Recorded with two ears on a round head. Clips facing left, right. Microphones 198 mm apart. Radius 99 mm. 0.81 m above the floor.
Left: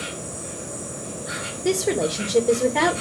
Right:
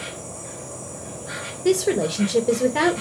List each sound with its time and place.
0.0 s an insect: 25° left (ahead or behind), 2.5 m
1.6 s a woman speaking: 5° right (ahead or behind), 0.9 m